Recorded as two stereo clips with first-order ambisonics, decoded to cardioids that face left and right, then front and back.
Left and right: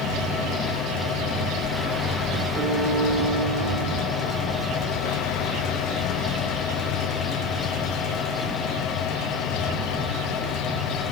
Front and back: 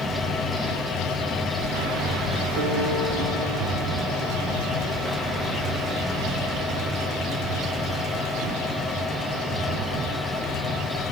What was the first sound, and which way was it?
A piano, 155° right.